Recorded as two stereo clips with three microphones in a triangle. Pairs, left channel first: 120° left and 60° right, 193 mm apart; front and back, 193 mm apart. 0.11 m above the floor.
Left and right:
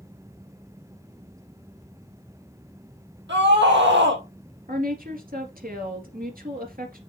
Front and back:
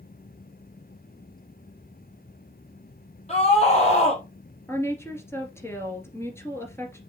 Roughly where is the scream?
Ahead right.